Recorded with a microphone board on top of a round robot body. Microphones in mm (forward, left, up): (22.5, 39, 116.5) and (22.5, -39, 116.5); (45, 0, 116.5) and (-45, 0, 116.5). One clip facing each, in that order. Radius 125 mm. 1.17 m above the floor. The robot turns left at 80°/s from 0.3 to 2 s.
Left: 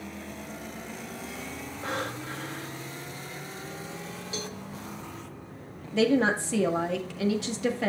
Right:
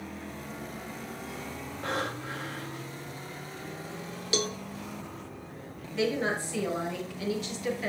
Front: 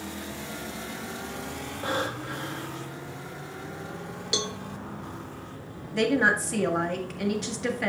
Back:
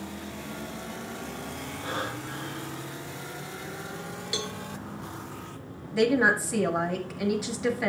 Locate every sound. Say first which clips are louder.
1.8 s breathing: right 1 dB, front 4 dB; 5° left, 2.5 m; by 2.9 s 10° right, 2.5 m
4.3 s a cowbell: right 8 dB, front 4 dB; 70° right, 0.5 m
5.9 s a woman speaking: left 6 dB, back 1 dB; 95° left, 1.7 m